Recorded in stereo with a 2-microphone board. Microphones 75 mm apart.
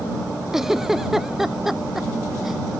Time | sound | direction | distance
0.5 | a giggle | 5° right (ahead or behind) | ?